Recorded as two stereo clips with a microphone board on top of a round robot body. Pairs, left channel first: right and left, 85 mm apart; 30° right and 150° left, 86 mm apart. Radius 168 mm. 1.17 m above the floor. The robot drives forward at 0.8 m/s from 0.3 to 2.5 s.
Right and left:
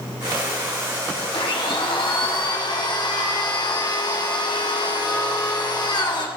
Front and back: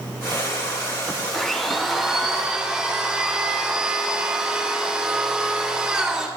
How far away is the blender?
About 2.5 m.